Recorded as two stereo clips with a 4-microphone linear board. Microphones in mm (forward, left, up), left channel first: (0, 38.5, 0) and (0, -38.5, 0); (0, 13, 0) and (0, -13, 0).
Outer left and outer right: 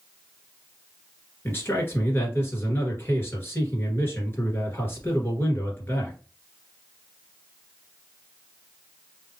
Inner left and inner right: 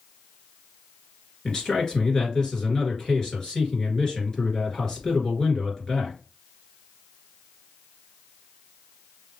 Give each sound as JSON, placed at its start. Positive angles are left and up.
{"t": 1.4, "sound": "a man speaking", "side_deg": 30, "distance_m": 1.8}